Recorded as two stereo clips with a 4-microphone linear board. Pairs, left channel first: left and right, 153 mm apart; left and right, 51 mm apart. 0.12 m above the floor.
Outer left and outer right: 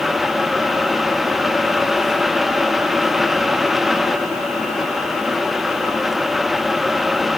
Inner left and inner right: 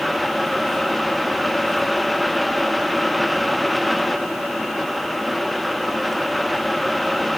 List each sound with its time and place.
Only background noise.